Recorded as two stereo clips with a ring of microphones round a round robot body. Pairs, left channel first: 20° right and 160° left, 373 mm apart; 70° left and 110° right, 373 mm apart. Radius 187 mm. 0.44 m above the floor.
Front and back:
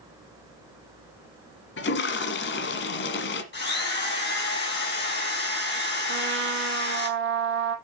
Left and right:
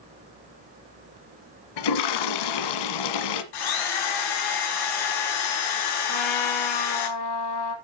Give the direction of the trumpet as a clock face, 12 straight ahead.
9 o'clock.